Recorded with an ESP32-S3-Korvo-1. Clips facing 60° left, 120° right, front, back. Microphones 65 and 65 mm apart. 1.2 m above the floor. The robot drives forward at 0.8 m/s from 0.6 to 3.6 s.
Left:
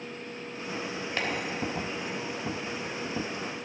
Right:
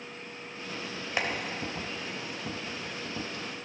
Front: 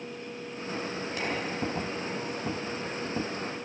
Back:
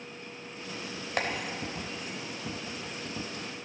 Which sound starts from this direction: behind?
Tapping, at 1.2 s.